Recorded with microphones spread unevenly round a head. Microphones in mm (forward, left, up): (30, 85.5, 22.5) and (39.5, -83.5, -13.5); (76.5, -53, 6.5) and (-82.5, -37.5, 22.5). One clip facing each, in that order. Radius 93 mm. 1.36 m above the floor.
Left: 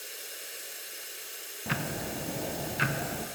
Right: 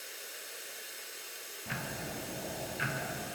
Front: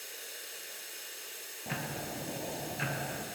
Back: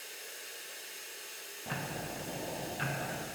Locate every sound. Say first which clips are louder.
0.0 s running water: left 2 dB, front 1 dB; 55° left, 2 m
1.7 s ticking: left 6 dB, front 1 dB; 70° left, 0.7 m